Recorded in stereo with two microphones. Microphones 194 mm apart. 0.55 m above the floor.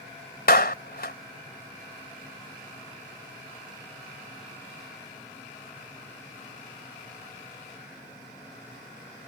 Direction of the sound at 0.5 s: 55° left (ahead or behind).